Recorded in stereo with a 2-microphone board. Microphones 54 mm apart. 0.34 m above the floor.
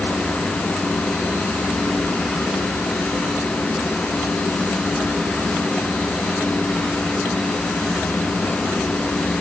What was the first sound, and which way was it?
Only background noise.